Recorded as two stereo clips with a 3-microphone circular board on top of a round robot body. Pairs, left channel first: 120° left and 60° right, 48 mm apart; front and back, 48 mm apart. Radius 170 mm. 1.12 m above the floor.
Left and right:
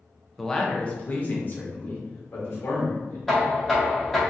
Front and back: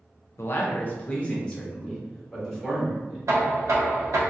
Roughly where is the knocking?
Behind right.